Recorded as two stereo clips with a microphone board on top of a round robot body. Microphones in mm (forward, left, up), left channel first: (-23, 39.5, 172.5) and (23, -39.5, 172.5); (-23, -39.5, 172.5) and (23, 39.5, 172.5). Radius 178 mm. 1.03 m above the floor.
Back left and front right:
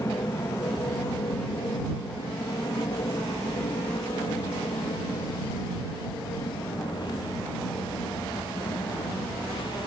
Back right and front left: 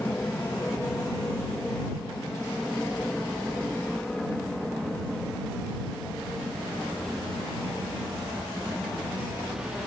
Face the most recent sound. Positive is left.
turn(degrees=145)